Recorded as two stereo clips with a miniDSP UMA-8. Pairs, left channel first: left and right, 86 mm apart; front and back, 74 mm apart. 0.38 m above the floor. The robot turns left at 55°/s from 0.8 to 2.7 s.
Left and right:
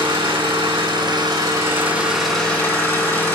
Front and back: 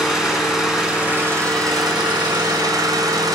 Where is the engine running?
100° right, 3.5 m; by 3.4 s 155° left, 3.5 m.